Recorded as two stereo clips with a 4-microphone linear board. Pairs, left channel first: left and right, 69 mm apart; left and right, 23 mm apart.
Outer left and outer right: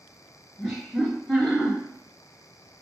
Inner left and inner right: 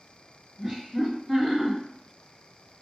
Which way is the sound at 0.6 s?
5° left (ahead or behind).